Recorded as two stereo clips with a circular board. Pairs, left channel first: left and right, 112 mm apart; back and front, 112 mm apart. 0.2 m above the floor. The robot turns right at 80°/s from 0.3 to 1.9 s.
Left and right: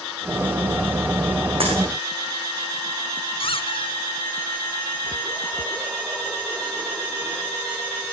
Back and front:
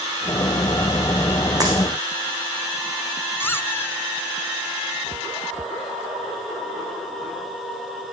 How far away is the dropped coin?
About 7.5 m.